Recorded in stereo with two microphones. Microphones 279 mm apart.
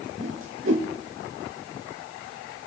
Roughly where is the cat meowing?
No cat meowing in this recording.